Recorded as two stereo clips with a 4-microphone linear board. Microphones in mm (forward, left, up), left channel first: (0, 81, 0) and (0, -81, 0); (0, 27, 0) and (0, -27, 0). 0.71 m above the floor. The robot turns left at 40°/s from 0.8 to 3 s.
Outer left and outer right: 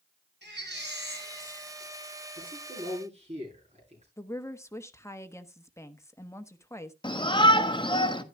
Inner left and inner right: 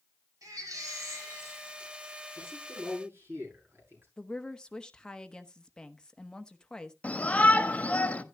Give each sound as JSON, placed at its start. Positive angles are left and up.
{"t": 0.4, "sound": "a baby crying", "azimuth_deg": -95, "distance_m": 3.5}
{"t": 2.4, "sound": "a man speaking", "side_deg": -65, "distance_m": 9.0}
{"t": 4.2, "sound": "a woman speaking", "side_deg": 15, "distance_m": 0.9}
{"t": 7.0, "sound": "a shout", "side_deg": 30, "distance_m": 1.2}